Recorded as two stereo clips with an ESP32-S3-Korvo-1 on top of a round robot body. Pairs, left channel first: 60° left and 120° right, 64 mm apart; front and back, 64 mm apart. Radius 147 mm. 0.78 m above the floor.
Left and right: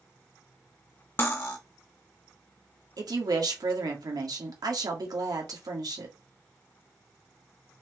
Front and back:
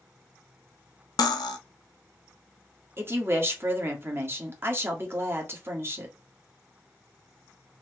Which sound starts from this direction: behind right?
A woman speaking, at 3.0 s.